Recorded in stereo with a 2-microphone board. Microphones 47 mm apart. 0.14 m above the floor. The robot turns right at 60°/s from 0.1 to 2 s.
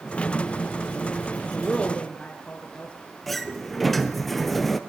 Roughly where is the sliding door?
Centre.